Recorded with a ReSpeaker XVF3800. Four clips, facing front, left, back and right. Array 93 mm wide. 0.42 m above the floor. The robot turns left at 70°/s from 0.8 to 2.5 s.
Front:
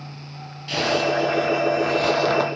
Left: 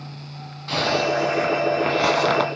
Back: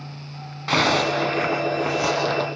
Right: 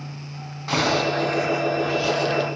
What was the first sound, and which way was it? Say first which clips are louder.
A zipper: even, back 1 dB; 170° right.